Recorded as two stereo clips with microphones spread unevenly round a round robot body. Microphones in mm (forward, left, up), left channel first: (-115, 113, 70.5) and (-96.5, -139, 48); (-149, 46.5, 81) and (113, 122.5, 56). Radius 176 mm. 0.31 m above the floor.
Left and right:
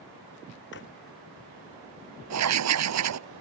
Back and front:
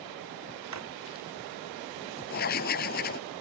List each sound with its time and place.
0.7 s a drawer: 35° left
2.3 s writing: 100° right